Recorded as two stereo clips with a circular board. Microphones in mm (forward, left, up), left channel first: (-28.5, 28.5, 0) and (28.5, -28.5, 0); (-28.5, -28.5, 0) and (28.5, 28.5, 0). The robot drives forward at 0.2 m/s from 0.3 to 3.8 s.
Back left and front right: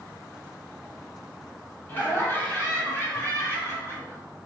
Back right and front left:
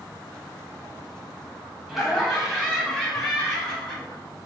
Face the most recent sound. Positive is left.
turn(degrees=150)